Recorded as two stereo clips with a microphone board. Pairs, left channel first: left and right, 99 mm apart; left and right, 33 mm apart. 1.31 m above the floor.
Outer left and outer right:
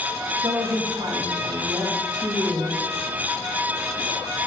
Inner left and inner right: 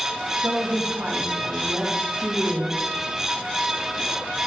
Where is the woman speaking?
45° right (ahead or behind), 3 m.